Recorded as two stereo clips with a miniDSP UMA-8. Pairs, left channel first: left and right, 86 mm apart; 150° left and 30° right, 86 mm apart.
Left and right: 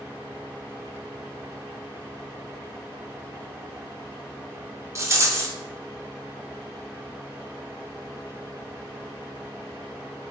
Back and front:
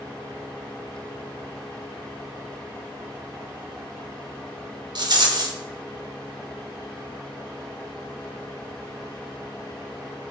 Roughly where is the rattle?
Ahead right.